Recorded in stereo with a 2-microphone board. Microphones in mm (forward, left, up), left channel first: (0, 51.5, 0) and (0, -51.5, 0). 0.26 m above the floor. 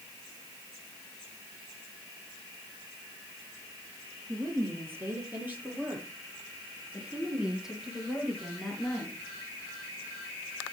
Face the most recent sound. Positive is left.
turn(degrees=5)  # may be behind; listen again after turning